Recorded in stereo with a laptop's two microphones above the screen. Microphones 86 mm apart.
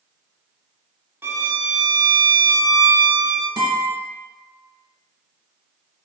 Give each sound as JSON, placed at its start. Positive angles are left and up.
{"t": 1.2, "sound": "a violin", "side_deg": -25, "distance_m": 0.5}
{"t": 3.6, "sound": "a guitar", "side_deg": -50, "distance_m": 1.6}